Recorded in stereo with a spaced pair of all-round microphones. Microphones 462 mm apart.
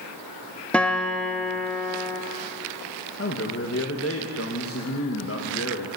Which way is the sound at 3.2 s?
30° left (ahead or behind).